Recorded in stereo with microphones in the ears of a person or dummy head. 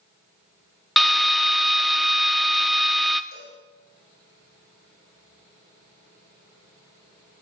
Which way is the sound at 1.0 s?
5° left (ahead or behind).